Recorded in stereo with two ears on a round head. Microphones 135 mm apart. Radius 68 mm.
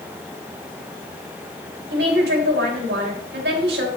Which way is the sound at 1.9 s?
80° right.